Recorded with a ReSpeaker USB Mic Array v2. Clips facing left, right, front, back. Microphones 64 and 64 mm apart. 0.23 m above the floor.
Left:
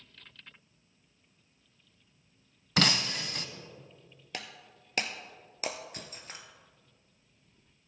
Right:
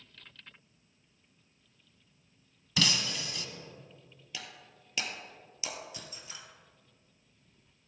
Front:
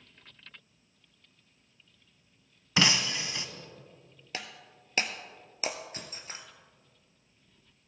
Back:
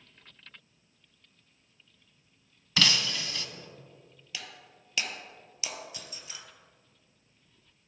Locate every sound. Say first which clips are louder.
2.8 s breaking glass: left 3 dB, front 1 dB; 65° left, 0.6 m
4.3 s breaking glass: left 3 dB, front 3 dB; 50° left, 1.0 m